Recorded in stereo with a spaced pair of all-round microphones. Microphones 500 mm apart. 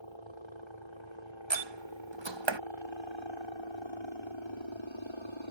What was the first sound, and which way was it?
A helicopter, 65° left (ahead or behind).